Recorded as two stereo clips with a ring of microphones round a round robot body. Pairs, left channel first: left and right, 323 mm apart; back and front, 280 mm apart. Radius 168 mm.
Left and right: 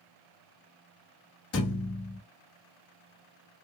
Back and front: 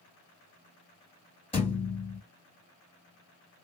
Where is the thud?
120° left, 1.1 m.